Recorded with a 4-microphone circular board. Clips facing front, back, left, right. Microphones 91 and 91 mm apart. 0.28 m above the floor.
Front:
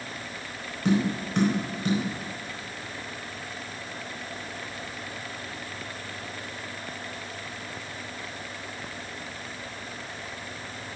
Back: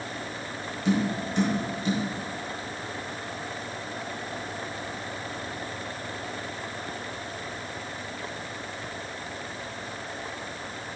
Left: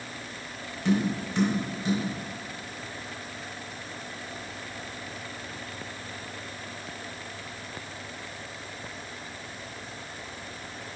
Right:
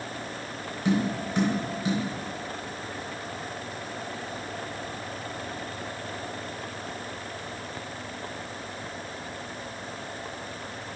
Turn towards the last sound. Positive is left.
turn(degrees=-15)